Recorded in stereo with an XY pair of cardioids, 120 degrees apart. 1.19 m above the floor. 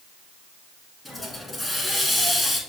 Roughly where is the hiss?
Ahead.